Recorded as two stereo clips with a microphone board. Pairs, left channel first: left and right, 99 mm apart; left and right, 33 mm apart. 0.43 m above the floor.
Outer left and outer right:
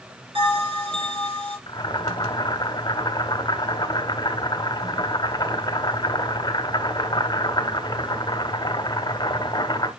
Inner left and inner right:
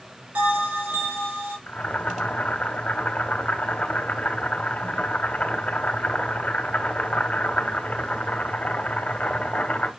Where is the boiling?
40° left (ahead or behind), 1.8 m.